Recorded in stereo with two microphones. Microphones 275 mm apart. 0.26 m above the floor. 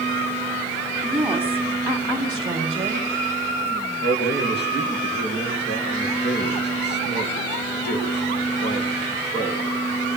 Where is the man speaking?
40° left (ahead or behind), 4.5 m.